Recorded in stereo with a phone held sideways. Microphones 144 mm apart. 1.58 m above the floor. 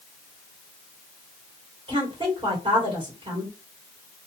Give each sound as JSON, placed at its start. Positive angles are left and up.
{"t": 1.9, "sound": "a woman speaking", "side_deg": -40, "distance_m": 1.2}